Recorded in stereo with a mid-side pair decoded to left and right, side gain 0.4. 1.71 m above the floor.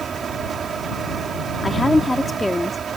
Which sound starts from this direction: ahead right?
A fan, at 0.0 s.